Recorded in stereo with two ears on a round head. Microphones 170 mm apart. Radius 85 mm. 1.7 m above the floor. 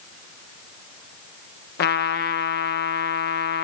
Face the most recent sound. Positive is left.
turn(degrees=55)  # may be behind; listen again after turning